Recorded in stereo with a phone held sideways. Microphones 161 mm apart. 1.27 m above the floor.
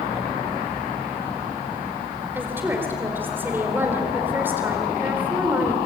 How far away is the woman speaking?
About 4 m.